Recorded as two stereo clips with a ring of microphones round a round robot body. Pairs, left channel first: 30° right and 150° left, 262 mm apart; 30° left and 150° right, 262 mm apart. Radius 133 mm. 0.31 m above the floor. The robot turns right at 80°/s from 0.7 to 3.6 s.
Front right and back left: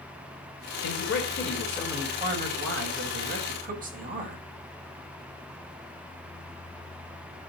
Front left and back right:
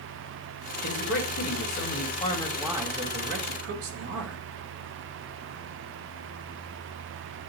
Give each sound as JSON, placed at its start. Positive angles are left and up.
{"t": 0.8, "sound": "a man speaking", "azimuth_deg": -20, "distance_m": 1.8}